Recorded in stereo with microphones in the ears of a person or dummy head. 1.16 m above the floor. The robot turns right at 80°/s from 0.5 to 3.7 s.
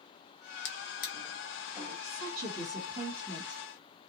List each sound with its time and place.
0.7 s a drawer: 70° left (ahead or behind), 0.7 m; by 1.9 s 20° right (ahead or behind), 0.7 m
2.0 s a woman speaking: 100° right, 1.5 m; by 4.1 s 35° left, 1.5 m